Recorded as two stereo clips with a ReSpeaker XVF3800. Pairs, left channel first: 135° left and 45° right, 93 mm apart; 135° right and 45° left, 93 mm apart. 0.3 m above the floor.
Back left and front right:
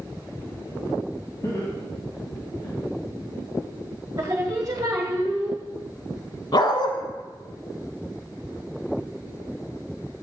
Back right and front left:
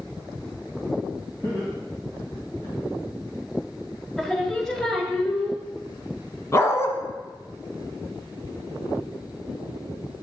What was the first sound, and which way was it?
Laughter, straight behind.